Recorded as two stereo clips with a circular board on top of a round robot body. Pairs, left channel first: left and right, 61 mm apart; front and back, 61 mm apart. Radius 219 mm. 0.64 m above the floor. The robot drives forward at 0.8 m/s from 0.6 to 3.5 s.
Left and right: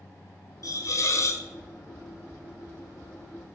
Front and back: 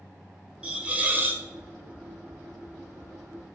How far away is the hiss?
About 1.8 m.